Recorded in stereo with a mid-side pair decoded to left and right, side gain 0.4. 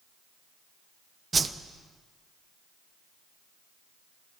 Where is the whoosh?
35° right, 0.7 m.